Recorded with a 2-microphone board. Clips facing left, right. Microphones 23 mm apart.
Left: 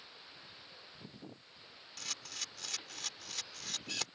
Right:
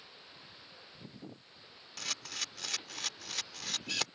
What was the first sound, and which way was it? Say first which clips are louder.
A camera shutter: right 4 dB; 20° right (ahead or behind).